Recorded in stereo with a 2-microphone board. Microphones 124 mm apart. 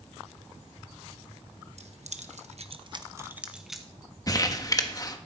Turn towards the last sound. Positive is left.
turn(degrees=30)  # may be behind; listen again after turning